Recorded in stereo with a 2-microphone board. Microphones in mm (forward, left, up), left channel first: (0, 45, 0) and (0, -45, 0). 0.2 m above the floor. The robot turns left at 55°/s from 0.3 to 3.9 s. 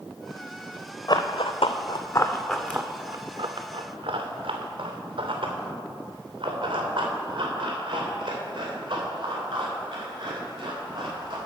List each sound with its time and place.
1.1 s running footsteps: 45° left (ahead or behind), 0.8 m; by 11.4 s 50° right (ahead or behind), 5 m